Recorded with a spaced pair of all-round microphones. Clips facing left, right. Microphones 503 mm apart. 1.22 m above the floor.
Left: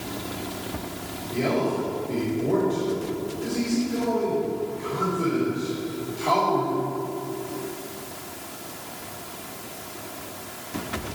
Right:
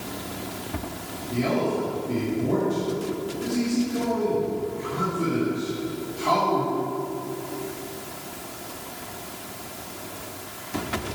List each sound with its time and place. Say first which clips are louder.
1.3 s a man speaking: even; 30° right (ahead or behind), 3.5 m